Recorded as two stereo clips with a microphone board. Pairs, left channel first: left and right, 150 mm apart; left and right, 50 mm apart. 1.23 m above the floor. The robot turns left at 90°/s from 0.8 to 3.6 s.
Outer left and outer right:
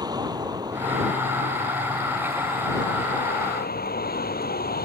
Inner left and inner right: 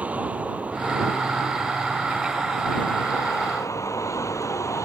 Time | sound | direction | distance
0.0 | a vehicle | 25° right | ?